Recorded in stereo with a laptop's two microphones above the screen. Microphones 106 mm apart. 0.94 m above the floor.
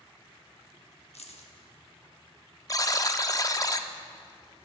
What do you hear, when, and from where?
1.1 s keys jangling: 75° left (ahead or behind), 1.1 m
2.7 s a buzzer: 35° left (ahead or behind), 0.5 m